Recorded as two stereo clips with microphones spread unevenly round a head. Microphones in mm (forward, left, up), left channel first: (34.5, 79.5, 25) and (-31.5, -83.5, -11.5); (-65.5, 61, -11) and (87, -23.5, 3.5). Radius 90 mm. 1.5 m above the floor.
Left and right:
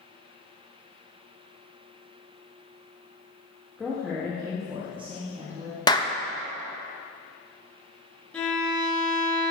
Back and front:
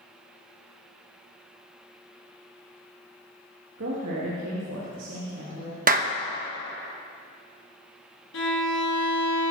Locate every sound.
3.8 s a woman speaking: 20° right, 2.5 m; by 5.8 s 60° right, 4.5 m
5.9 s a clap: 5° left, 1.2 m
8.3 s a violin: 145° left, 3.5 m